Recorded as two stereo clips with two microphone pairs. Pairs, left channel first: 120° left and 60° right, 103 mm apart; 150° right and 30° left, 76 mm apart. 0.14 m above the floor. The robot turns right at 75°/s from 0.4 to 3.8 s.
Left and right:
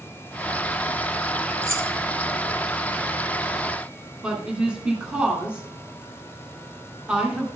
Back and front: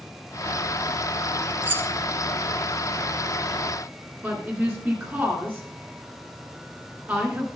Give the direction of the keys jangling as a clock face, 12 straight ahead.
1 o'clock.